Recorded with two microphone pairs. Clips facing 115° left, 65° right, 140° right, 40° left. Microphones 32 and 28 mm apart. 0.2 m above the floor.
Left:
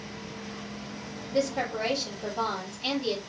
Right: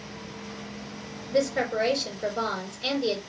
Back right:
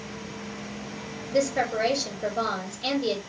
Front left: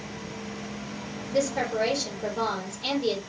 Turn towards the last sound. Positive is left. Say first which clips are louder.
# right 3 dB, back right 2 dB
turn(degrees=-65)